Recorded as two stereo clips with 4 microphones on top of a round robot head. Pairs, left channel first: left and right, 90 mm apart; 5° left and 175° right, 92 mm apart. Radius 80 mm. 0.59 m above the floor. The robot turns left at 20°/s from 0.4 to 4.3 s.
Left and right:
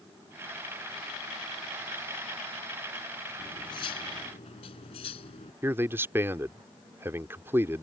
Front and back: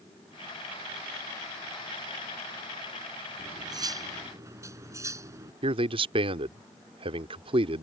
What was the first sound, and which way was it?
Cutlery clinking, 145° left.